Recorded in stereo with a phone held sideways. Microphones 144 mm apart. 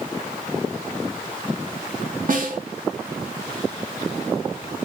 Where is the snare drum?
65° right (ahead or behind), 2.5 m.